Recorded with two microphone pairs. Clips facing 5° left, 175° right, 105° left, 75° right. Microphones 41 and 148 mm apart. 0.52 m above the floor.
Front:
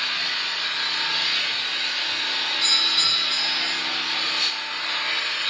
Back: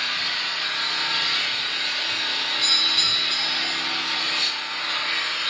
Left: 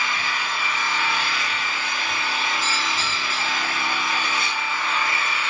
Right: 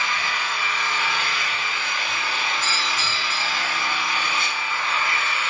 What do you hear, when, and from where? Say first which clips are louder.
0.0 s an engine running: even, even; 80° left, 1.3 m
2.6 s a doorbell: even, left 1 dB; 95° left, 1.3 m